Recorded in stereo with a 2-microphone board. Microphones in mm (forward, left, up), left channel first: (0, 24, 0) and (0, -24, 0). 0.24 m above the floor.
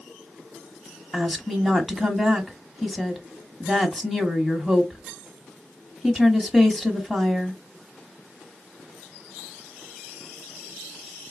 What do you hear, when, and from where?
1.1 s a woman speaking: centre (ahead or behind), 1.3 m